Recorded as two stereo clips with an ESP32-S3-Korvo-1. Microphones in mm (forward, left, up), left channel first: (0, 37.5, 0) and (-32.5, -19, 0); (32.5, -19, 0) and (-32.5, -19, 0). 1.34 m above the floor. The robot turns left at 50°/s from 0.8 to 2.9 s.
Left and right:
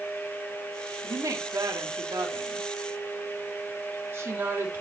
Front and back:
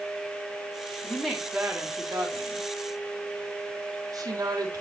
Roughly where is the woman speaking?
Right.